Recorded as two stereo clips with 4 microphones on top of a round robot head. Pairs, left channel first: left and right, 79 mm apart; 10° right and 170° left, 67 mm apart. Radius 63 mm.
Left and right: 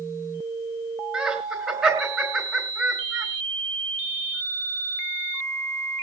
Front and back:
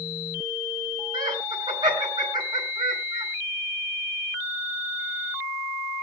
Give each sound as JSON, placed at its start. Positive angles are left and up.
{"t": 1.1, "sound": "laughter", "azimuth_deg": -165, "distance_m": 5.0}